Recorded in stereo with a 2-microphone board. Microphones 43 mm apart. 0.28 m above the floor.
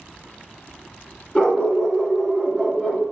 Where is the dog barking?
20° left (ahead or behind), 1.2 m; by 3.0 s 25° right (ahead or behind), 1.3 m.